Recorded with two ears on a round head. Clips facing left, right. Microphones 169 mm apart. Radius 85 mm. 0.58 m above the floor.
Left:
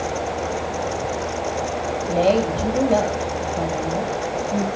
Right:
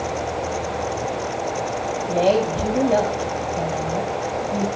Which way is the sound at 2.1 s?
Centre (ahead or behind).